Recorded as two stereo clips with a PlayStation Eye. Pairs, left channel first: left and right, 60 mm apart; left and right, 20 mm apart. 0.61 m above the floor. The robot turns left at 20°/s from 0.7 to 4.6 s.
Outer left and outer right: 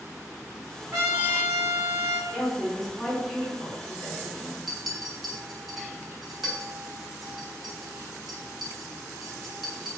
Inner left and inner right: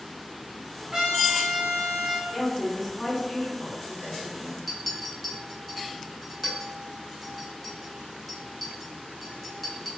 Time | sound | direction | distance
0.9 | a trumpet | 45° right (ahead or behind) | 1.1 m
2.3 | a woman speaking | 15° left | 1.7 m
4.7 | a clink | 5° right (ahead or behind) | 0.9 m